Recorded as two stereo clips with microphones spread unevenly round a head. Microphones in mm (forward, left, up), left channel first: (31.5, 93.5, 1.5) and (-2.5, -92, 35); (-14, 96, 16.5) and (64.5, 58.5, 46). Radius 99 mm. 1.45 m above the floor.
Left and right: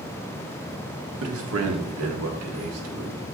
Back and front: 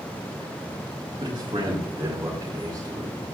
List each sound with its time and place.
1.2 s a man speaking: 90° right, 1.9 m; by 3.2 s 100° right, 3 m